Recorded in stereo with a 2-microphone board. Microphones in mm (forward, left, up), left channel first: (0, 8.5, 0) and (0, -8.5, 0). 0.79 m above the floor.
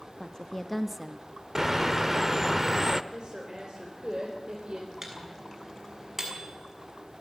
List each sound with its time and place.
0.2 s a woman speaking: 55° left (ahead or behind), 1.2 m; by 2.5 s 55° right (ahead or behind), 3 m
1.6 s a bird: 35° right (ahead or behind), 0.9 m
3.1 s a woman speaking: 60° right (ahead or behind), 3.5 m
5.0 s a microwave: 15° right (ahead or behind), 6.5 m